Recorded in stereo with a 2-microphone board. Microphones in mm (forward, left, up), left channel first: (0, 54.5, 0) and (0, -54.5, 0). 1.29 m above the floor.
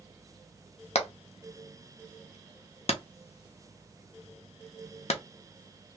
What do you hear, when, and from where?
0.9 s hammering: 65° left (ahead or behind), 0.6 m